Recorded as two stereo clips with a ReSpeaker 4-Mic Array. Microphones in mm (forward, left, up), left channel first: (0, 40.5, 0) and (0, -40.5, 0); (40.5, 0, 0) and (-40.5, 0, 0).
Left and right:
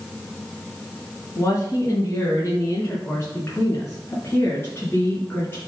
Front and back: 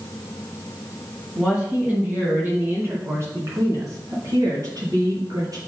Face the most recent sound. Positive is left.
turn(degrees=155)